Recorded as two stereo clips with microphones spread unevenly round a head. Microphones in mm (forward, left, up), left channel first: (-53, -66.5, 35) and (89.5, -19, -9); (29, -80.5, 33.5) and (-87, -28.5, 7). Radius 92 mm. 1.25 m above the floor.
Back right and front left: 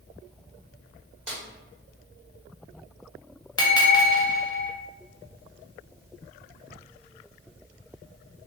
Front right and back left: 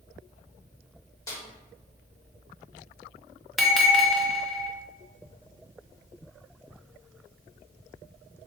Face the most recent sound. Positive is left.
turn(degrees=-110)